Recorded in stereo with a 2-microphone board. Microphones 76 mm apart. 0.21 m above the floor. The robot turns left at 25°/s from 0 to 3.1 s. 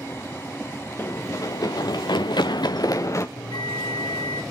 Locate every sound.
1.0 s running footsteps: 30° left (ahead or behind), 1.8 m; by 3.3 s 40° left (ahead or behind), 1.3 m
3.4 s a bell: 85° left, 3 m